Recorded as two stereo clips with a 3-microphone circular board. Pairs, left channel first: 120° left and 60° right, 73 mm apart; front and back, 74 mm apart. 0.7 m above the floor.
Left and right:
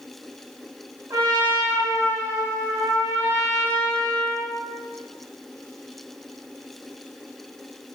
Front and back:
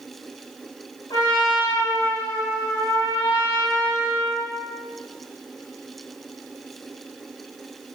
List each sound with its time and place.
1.1 s a trumpet: 20° right, 1.3 m